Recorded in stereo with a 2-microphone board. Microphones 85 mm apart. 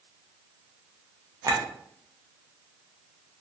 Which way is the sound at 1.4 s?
40° right (ahead or behind).